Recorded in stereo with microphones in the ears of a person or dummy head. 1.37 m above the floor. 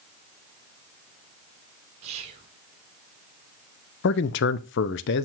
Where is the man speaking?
55° left (ahead or behind), 0.6 m.